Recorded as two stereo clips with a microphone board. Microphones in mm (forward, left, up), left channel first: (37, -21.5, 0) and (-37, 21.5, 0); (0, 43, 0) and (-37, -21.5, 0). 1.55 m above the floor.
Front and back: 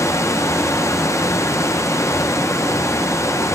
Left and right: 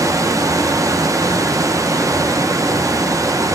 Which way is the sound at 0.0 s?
85° right.